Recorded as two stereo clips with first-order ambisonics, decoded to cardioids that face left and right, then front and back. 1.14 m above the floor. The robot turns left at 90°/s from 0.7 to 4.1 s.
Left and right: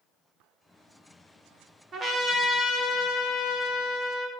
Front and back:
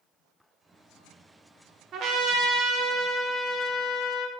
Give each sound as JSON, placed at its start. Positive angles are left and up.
{"t": 1.9, "sound": "a trumpet", "azimuth_deg": -140, "distance_m": 0.5}